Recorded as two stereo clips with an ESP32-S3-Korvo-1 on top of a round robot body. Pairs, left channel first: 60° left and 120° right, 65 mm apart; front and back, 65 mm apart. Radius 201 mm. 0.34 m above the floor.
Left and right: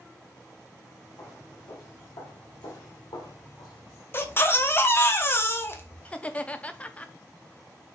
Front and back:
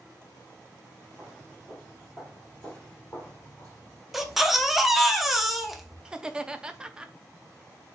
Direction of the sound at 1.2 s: 90° left.